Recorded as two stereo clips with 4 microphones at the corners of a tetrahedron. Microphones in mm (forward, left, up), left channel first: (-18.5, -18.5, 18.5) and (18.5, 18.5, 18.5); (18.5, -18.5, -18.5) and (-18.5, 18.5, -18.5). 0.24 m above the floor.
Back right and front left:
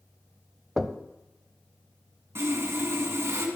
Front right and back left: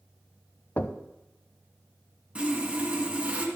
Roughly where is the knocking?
Ahead right.